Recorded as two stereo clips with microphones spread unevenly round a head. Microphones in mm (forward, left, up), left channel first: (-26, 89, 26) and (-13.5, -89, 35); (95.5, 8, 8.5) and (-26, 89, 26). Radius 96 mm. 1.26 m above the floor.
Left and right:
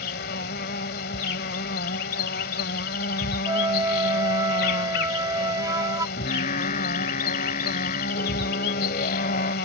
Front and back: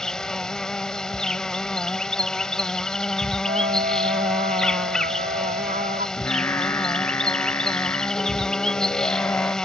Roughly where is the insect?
Ahead left.